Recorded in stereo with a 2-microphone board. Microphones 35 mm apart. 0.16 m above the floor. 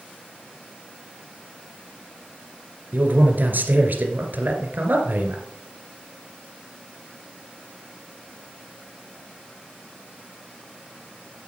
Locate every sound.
2.9 s a man speaking: 60° right (ahead or behind), 2.5 m